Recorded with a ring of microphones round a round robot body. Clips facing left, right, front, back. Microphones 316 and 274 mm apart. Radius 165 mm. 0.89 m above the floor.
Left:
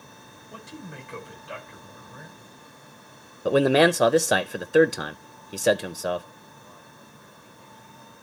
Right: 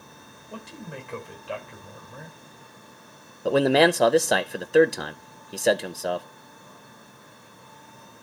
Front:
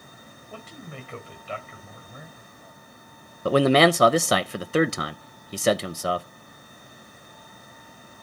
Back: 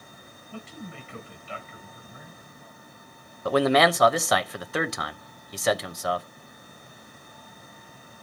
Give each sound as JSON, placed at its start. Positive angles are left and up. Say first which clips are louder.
{"t": 0.5, "sound": "a man speaking", "louder": "right 2 dB, back 2 dB", "azimuth_deg": -55, "distance_m": 3.5}
{"t": 3.5, "sound": "a man speaking", "louder": "even, front 3 dB", "azimuth_deg": 5, "distance_m": 0.7}